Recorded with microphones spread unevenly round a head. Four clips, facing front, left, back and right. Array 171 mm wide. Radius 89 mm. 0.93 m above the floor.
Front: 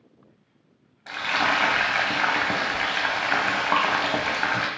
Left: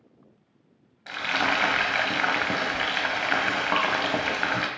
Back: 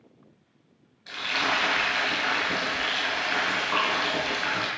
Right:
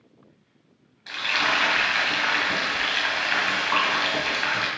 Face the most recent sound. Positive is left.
turn(degrees=35)